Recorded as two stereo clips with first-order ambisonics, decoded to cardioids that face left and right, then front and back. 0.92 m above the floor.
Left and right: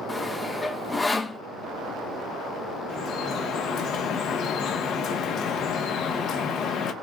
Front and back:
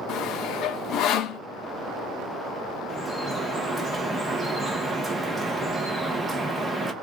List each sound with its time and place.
0.1 s sawing: 15° left, 0.5 m
2.9 s dripping: 100° left, 0.9 m